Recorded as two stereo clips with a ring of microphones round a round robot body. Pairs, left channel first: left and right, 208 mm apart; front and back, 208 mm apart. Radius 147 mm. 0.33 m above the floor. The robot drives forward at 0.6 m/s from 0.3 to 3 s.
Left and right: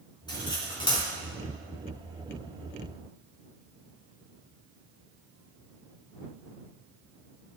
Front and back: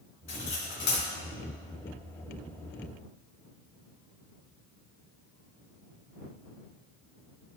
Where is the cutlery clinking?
20° left, 2.5 m; by 1.1 s 25° left, 2.5 m.